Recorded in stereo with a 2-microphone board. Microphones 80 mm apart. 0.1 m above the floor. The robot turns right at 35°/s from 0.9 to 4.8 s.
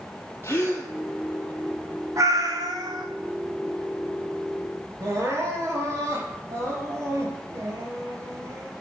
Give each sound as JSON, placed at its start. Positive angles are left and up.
{"t": 0.4, "sound": "a gasp", "side_deg": 40, "distance_m": 1.6}
{"t": 2.2, "sound": "a cat meowing", "azimuth_deg": -135, "distance_m": 1.7}
{"t": 5.0, "sound": "crying", "side_deg": -40, "distance_m": 2.0}